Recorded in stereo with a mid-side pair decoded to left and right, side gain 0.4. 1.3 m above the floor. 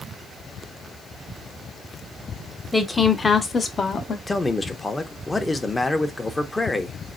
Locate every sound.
2.7 s a woman speaking: 10° left, 1.0 m; by 4.2 s 55° left, 1.0 m
4.3 s a man speaking: 20° left, 0.7 m